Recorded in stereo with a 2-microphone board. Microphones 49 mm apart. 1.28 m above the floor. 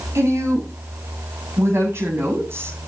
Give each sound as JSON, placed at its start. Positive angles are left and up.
{"t": 0.1, "sound": "a woman speaking", "side_deg": -70, "distance_m": 7.5}